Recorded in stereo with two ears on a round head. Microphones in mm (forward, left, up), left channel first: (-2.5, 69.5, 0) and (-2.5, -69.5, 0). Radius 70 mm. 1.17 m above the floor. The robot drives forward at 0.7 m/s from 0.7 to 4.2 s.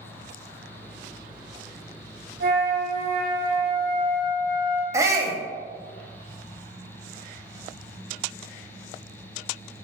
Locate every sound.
2.4 s a flute: 70° right (ahead or behind), 0.7 m; by 4.8 s 25° right (ahead or behind), 1.5 m
4.9 s a shout: 20° right (ahead or behind), 0.5 m